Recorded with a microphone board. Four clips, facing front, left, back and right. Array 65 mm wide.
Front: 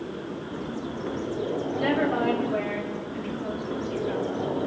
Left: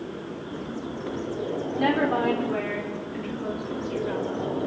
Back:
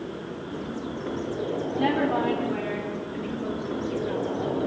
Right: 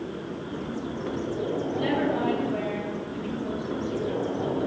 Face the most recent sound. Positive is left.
turn(degrees=110)